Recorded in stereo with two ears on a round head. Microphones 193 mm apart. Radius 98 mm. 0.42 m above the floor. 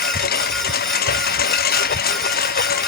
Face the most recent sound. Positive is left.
turn(degrees=45)  # may be behind; listen again after turning